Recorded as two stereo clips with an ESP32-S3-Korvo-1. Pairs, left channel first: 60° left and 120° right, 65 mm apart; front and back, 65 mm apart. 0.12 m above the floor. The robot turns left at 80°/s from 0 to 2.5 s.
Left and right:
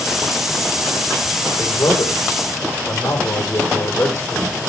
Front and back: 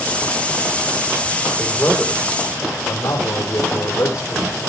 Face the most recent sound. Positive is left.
turn(degrees=10)